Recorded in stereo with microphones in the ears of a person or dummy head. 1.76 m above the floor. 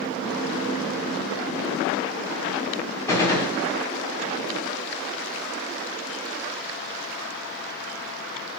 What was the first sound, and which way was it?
A gunshot, 10° left (ahead or behind).